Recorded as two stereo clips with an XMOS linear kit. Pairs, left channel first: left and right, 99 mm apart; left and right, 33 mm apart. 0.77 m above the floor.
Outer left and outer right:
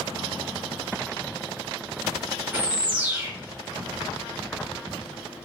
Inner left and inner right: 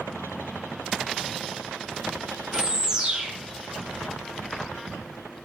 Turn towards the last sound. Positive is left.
turn(degrees=-15)  # may be behind; listen again after turning